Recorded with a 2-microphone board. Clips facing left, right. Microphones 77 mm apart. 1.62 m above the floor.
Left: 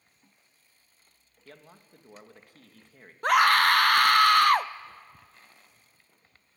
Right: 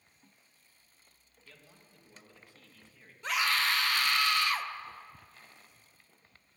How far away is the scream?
About 0.6 m.